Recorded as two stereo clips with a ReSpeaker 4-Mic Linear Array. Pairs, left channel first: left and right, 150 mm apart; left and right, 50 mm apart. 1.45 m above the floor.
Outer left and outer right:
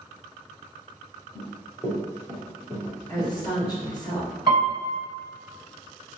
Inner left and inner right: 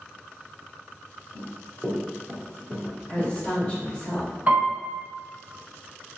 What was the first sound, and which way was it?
Running footsteps, 35° left (ahead or behind).